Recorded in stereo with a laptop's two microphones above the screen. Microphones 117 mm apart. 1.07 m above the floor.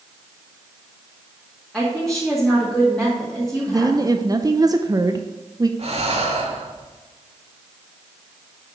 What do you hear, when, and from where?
1.7 s a woman speaking: 5° left (ahead or behind), 2 m
3.7 s a woman speaking: 30° right (ahead or behind), 0.6 m
5.8 s breathing: 60° right (ahead or behind), 1.8 m